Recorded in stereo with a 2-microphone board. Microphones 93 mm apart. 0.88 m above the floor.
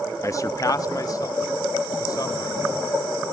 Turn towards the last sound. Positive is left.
turn(degrees=45)  # may be behind; listen again after turning